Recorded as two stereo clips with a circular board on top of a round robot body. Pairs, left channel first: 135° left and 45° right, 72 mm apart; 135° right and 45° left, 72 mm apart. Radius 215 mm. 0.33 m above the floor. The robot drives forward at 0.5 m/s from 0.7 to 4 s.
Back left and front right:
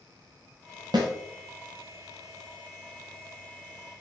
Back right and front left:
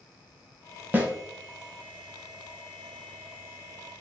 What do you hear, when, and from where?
0.9 s a snare drum: 20° right, 1.5 m; by 1.1 s 25° right, 1.4 m